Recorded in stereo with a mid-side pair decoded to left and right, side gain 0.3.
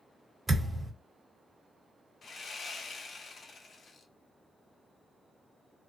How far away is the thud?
About 1.3 m.